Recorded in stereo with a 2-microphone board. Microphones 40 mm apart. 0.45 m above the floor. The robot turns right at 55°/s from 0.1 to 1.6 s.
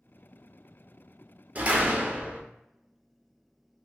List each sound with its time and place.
1.6 s a door slam: 40° right (ahead or behind), 0.6 m; by 2.4 s 35° right (ahead or behind), 0.6 m